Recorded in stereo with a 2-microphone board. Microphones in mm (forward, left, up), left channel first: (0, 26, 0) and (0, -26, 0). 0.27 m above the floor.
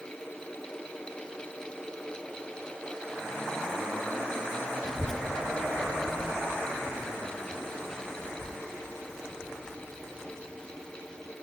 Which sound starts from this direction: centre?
A child speaking, at 4.8 s.